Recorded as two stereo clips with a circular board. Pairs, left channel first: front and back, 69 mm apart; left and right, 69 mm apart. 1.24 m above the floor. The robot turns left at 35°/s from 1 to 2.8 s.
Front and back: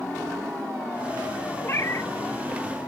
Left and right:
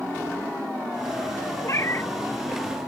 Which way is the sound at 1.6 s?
50° left.